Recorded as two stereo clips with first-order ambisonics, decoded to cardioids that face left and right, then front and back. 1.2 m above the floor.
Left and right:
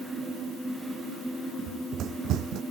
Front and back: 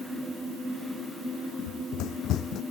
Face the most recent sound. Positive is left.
turn(degrees=-50)